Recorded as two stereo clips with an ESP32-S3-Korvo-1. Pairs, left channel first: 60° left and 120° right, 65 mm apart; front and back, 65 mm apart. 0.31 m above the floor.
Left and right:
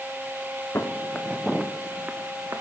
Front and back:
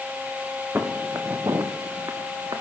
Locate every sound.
0.8 s footsteps: 115° left, 1.7 m; by 2.6 s 165° right, 2 m